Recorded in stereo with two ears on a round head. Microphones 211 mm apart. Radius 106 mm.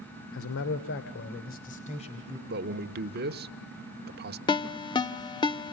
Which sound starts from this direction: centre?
A ringtone, at 4.5 s.